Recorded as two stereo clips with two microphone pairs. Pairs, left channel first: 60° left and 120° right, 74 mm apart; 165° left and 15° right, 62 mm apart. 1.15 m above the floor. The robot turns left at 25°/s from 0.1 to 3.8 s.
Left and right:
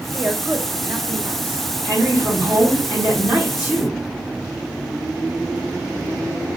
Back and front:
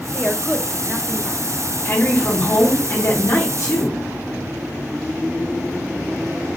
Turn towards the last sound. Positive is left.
turn(degrees=170)